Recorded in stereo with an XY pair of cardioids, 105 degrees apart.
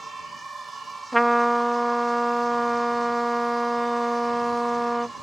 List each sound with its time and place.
0.0 s an insect: 20° right
1.1 s a trumpet: straight ahead